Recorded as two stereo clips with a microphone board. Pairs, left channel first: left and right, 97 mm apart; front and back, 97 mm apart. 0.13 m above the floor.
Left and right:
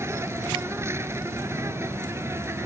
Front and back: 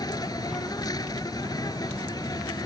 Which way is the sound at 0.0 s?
35° right.